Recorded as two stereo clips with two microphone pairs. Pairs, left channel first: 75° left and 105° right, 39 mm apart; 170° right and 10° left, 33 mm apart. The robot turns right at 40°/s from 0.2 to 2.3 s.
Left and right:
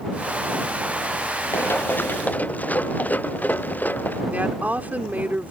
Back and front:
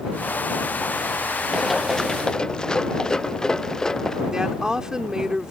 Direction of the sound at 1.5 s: 95° left.